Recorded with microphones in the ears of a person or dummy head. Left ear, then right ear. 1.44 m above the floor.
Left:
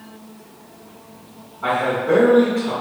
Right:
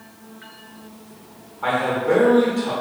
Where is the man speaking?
20° right (ahead or behind), 1.0 m.